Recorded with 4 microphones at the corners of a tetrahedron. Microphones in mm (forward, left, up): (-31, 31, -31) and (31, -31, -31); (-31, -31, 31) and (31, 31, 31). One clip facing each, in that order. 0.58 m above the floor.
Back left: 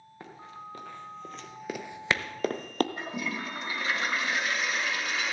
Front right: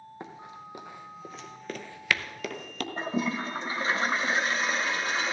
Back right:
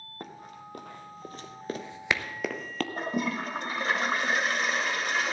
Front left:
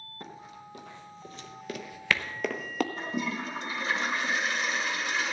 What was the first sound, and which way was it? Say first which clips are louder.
Running footsteps: even, back right 2 dB; 110° right.